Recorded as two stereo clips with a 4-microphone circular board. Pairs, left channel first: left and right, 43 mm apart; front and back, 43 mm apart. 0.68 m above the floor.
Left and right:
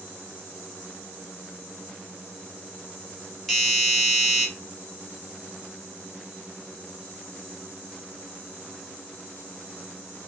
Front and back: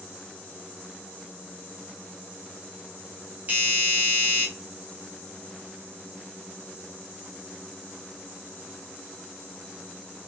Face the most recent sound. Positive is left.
turn(degrees=175)